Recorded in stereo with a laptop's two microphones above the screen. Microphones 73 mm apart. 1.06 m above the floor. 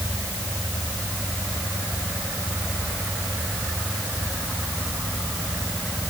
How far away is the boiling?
I don't hear boiling.